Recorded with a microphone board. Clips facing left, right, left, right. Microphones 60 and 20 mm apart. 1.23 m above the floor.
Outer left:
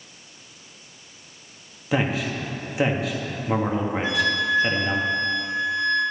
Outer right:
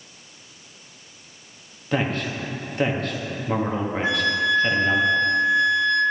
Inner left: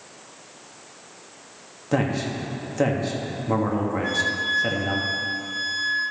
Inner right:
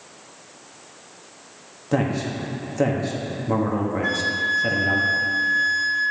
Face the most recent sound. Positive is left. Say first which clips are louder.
# outer right 3 dB, inner right 2 dB
turn(degrees=-35)  # may be behind; listen again after turning